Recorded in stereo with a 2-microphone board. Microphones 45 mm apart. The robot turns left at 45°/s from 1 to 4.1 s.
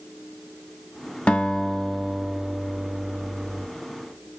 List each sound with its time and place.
1.3 s a guitar: 30° left, 0.7 m; by 3.7 s 80° right, 0.7 m